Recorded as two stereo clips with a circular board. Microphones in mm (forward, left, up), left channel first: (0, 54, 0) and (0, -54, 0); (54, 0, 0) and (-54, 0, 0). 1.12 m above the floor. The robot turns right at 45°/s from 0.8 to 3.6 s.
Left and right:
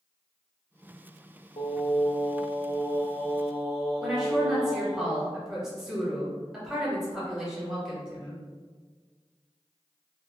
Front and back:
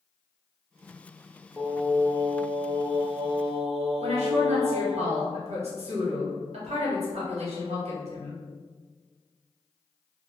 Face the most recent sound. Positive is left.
turn(degrees=-175)